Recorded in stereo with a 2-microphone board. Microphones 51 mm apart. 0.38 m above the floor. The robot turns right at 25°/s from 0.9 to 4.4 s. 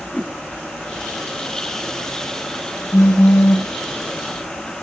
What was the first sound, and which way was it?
A whoosh, 30° left (ahead or behind).